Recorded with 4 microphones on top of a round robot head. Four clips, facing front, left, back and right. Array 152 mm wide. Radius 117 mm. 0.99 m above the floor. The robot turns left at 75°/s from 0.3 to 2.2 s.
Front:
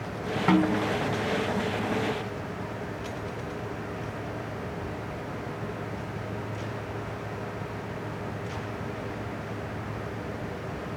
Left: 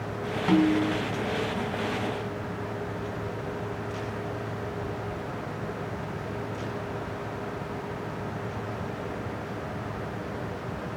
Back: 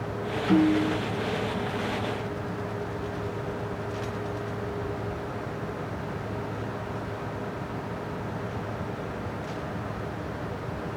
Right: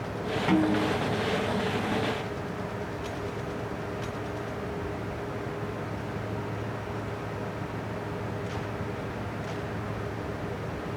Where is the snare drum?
15° left, 5 m; by 1.0 s 25° right, 5 m.